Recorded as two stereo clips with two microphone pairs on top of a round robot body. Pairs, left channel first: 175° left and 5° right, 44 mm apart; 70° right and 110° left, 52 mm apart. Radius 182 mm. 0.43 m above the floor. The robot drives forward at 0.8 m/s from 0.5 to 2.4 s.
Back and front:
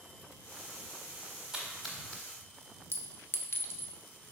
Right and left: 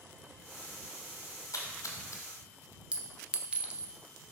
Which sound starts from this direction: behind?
A clink, at 2.9 s.